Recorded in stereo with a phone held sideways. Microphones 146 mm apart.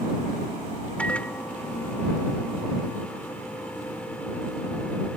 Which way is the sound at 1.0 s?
10° left (ahead or behind).